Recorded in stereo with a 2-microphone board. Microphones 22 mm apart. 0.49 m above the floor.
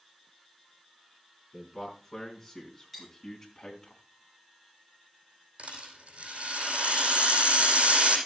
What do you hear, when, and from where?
1.5 s a man speaking: 10° left (ahead or behind), 5 m; by 3.9 s 30° left (ahead or behind), 3.5 m
2.9 s cutlery clinking: centre (ahead or behind), 7 m
5.6 s a rattle: 75° right (ahead or behind), 4.5 m